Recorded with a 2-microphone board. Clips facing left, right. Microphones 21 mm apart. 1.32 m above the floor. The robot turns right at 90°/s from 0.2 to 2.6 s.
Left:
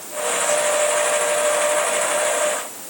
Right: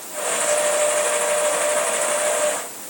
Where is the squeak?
I don't hear a squeak.